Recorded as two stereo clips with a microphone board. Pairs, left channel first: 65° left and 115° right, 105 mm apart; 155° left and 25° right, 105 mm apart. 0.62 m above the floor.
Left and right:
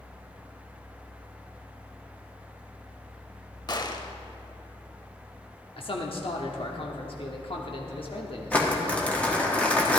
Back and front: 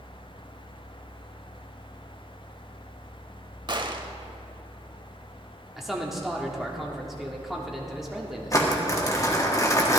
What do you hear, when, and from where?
3.7 s a gunshot: 20° left, 0.6 m
5.8 s a man speaking: 65° left, 1.1 m
8.5 s crumpling: 135° left, 1.4 m